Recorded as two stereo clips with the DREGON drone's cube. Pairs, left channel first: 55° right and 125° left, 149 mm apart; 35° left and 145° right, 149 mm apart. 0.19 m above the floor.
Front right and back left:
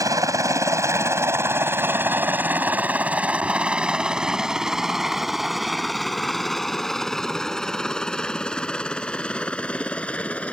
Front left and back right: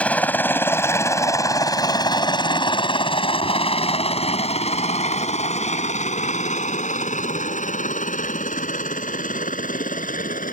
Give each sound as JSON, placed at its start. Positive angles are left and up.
{"t": 0.0, "sound": "a helicopter", "azimuth_deg": 100}